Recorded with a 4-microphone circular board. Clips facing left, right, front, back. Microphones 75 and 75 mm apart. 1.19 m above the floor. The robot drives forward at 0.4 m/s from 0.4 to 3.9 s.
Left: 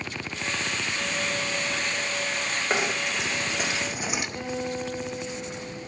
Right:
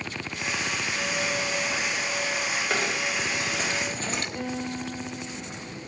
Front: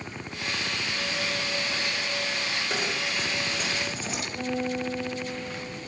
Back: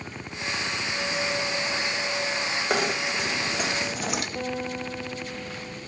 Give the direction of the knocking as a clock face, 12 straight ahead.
7 o'clock.